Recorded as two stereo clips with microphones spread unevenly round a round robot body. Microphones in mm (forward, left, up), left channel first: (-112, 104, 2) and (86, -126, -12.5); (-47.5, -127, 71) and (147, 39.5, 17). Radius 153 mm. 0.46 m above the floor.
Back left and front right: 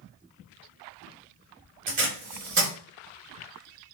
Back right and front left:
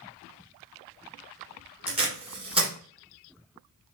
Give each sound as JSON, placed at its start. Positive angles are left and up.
{"t": 1.9, "sound": "tape being pulled", "azimuth_deg": -10, "distance_m": 1.8}